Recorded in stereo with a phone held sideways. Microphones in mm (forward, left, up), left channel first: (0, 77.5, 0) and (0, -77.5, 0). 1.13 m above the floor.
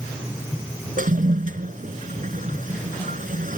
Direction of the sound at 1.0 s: 65° right (ahead or behind).